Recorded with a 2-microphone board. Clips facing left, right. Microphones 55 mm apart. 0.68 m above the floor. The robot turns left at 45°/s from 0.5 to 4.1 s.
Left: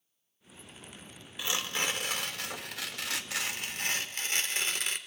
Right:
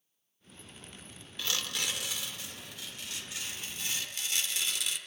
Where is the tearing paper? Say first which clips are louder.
Left 3 dB; 165° left, 1.3 m; by 5.0 s 45° left, 1.3 m.